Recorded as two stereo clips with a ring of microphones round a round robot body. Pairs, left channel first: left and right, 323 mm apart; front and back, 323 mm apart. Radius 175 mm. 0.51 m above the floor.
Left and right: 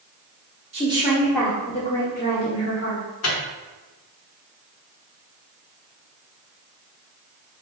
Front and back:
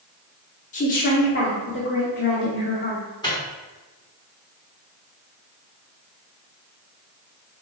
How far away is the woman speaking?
About 0.8 m.